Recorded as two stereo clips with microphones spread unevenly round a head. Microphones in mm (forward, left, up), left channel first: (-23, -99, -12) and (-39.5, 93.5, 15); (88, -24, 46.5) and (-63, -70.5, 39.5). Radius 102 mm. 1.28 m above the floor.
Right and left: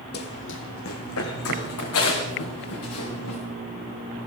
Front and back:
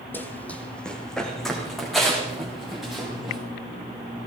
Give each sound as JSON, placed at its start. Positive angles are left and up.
{"t": 0.1, "sound": "running footsteps", "azimuth_deg": -55, "distance_m": 1.8}